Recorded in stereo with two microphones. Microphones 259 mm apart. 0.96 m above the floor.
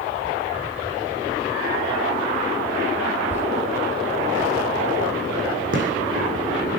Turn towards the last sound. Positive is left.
turn(degrees=-45)  # may be behind; listen again after turning